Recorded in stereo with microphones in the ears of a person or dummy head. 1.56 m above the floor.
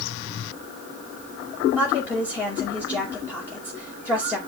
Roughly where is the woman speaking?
Centre.